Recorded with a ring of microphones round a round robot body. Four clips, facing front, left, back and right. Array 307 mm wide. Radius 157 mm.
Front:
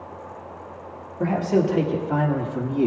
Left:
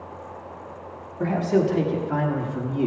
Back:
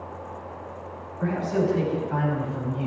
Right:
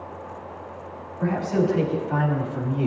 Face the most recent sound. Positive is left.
turn(degrees=20)